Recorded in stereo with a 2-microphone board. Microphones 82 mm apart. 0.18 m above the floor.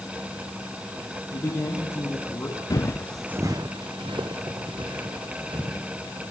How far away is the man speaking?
About 7 m.